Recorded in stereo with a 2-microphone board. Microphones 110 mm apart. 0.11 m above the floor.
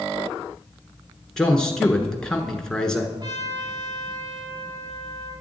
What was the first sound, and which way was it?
A man speaking, 5° left (ahead or behind).